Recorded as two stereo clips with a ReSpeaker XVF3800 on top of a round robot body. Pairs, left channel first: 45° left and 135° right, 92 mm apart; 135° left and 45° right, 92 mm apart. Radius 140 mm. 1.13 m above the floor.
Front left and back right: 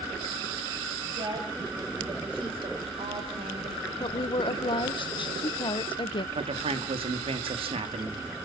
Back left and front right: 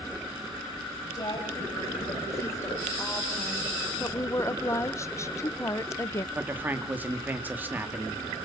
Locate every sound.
1.0 s a woman speaking: straight behind, 6 m; by 3.9 s 140° right, 4 m
4.0 s a woman speaking: 75° left, 0.9 m
6.3 s a man speaking: 115° right, 2 m